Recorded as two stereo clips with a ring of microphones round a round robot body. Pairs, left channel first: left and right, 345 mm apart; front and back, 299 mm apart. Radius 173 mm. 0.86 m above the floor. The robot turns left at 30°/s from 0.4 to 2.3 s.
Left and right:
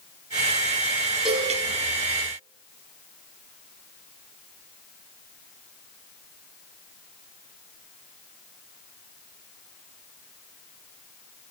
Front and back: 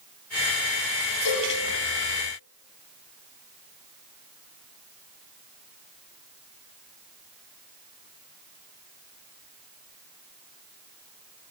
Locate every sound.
1.2 s a cowbell: straight ahead, 10 m; by 1.6 s 10° right, 10 m